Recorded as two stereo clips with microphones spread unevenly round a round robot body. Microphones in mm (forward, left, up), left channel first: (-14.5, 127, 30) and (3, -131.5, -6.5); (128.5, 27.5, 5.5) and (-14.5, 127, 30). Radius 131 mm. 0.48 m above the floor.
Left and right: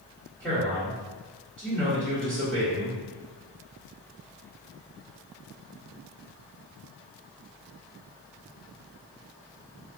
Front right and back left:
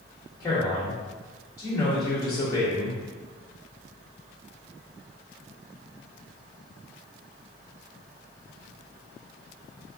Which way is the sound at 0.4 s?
Straight ahead.